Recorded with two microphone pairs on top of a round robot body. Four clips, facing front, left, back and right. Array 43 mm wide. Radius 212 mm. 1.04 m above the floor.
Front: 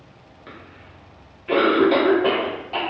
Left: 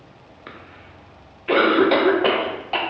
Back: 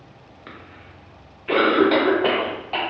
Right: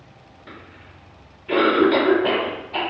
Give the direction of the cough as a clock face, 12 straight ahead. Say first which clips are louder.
Left 1 dB, even; 8 o'clock.